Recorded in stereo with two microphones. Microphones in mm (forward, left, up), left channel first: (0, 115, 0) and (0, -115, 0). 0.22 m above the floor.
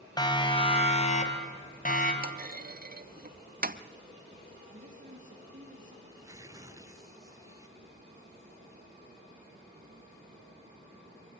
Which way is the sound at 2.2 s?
40° right (ahead or behind).